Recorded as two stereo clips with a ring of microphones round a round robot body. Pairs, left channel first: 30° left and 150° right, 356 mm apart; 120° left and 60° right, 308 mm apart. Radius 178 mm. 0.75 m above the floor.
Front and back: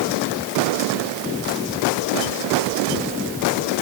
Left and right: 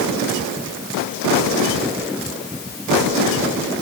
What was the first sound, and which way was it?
Only background noise.